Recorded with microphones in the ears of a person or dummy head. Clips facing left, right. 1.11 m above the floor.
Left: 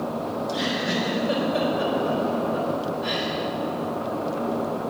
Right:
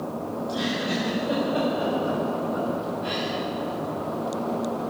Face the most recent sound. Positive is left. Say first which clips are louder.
# right 1 dB
turn(degrees=40)  # may be behind; listen again after turning